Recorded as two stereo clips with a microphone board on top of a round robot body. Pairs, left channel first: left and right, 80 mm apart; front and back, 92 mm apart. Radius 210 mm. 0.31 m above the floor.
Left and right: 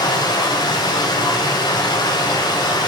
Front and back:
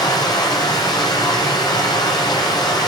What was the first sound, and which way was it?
Running water, 50° left.